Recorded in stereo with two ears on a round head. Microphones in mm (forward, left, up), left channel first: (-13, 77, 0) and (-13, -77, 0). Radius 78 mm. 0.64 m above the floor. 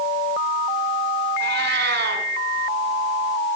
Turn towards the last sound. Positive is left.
turn(degrees=-65)  # may be behind; listen again after turning